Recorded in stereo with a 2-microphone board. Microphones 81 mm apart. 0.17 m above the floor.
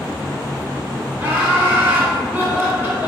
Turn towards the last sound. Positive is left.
turn(degrees=-25)  # may be behind; listen again after turning